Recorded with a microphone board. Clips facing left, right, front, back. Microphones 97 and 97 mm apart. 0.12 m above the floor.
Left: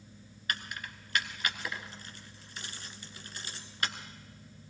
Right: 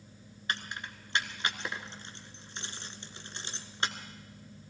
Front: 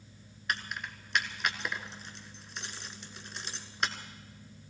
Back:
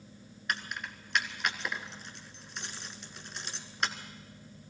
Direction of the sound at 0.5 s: 90° right.